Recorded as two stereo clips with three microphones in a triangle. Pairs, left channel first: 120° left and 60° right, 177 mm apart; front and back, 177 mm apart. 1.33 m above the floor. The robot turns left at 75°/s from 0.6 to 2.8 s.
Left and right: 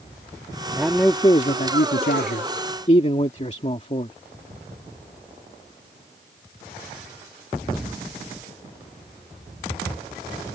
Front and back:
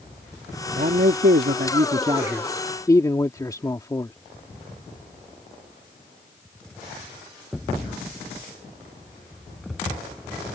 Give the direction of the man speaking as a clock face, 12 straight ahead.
5 o'clock.